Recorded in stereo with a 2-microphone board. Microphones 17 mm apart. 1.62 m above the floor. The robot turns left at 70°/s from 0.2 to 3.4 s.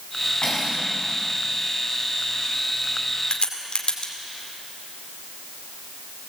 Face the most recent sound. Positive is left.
turn(degrees=60)  # may be behind; listen again after turning